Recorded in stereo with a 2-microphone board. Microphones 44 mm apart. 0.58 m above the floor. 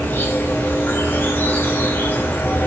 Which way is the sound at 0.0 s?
55° left (ahead or behind).